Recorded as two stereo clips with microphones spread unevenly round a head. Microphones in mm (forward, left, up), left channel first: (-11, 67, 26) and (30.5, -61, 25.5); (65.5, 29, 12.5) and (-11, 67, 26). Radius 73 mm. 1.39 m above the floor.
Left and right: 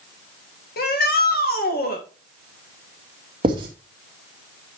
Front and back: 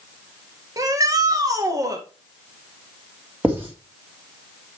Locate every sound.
0.8 s a shout: 100° left, 1.9 m
3.4 s writing: 130° right, 2 m